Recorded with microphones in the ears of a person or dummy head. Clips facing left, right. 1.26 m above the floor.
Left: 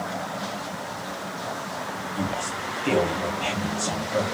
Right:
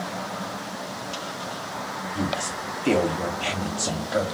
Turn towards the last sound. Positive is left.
turn(degrees=-10)  # may be behind; listen again after turning